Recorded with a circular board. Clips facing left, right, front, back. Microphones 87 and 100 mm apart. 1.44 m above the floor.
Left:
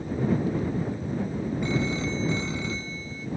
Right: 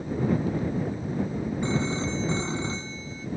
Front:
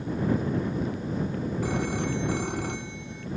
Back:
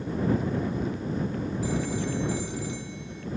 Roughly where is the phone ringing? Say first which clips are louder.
Even, front 1 dB; ahead right.